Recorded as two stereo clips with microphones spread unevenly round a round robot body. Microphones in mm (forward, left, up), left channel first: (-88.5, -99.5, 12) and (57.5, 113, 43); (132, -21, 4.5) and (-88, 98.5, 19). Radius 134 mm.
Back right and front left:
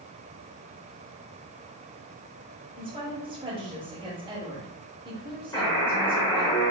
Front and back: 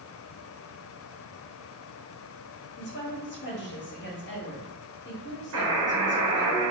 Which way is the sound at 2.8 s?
15° right.